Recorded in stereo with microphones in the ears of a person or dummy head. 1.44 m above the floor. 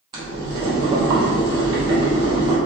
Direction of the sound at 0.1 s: 25° right (ahead or behind).